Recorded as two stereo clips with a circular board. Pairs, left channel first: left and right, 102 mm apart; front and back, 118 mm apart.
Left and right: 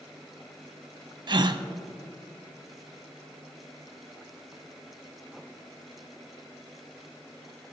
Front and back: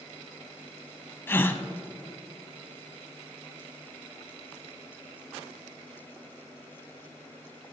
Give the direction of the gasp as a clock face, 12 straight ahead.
2 o'clock.